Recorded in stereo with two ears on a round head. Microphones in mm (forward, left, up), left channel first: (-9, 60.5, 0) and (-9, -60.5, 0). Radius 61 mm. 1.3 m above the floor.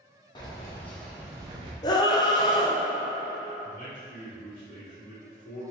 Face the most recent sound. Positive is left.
turn(degrees=80)